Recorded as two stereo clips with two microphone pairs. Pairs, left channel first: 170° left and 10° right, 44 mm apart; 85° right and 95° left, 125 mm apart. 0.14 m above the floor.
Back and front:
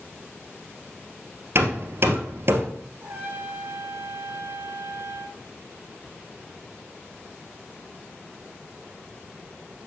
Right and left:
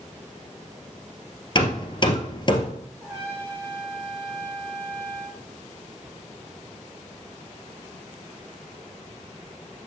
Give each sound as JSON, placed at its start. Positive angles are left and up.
{"t": 1.6, "sound": "hammering", "azimuth_deg": -40, "distance_m": 1.7}
{"t": 3.0, "sound": "a trumpet", "azimuth_deg": 20, "distance_m": 2.5}